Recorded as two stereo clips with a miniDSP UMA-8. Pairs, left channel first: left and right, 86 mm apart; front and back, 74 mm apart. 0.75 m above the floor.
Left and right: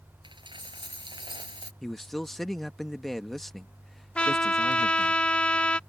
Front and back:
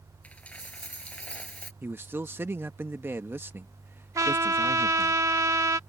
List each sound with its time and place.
0.2 s a dropped coin: 70° right
1.8 s a man speaking: 175° left
4.2 s a trumpet: 160° left